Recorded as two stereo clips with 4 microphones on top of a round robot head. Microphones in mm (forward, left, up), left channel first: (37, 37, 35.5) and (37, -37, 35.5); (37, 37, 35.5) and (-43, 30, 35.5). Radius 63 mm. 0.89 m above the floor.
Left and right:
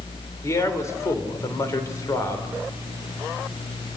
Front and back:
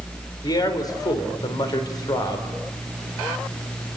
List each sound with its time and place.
0.4 s a man speaking: 45° left, 4 m